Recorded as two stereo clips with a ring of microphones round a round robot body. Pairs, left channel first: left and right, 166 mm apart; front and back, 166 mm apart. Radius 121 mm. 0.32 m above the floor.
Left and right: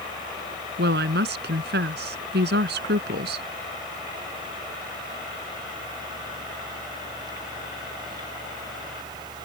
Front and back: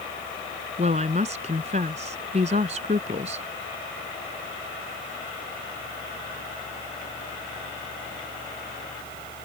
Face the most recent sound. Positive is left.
turn(degrees=-120)